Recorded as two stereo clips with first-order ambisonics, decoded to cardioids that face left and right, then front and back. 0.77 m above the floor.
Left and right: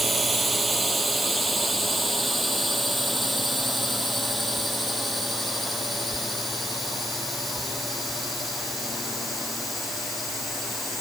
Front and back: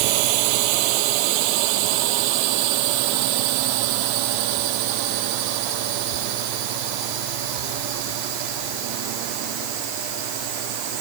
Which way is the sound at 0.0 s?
170° right.